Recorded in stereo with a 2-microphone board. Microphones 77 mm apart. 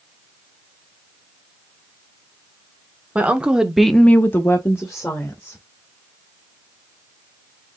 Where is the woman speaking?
15° right (ahead or behind), 1.5 m; by 5.6 s 30° left (ahead or behind), 2.5 m.